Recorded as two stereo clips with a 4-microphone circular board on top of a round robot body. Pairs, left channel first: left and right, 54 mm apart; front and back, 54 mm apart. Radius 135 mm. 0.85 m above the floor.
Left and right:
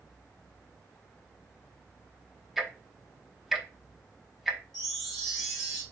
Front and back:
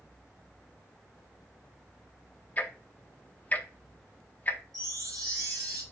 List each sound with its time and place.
2.6 s ticking: 5° right, 1.0 m
4.7 s a chime: 175° left, 2 m